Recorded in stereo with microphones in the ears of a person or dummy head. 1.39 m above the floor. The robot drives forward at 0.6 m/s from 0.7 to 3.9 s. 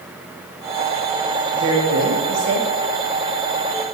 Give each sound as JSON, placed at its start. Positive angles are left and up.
{"t": 1.5, "sound": "a woman speaking", "side_deg": -65, "distance_m": 1.8}